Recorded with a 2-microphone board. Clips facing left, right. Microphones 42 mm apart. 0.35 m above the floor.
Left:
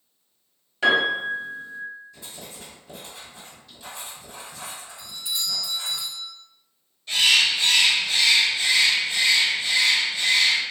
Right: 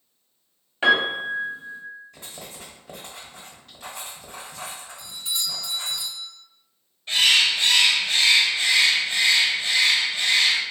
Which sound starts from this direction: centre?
A doorbell, at 5.0 s.